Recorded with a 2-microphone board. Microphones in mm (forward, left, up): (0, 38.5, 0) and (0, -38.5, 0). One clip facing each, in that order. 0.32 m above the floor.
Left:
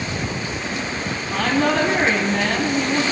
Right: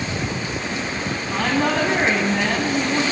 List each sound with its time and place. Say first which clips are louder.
1.3 s a woman speaking: left 2 dB; 15° right (ahead or behind), 2.5 m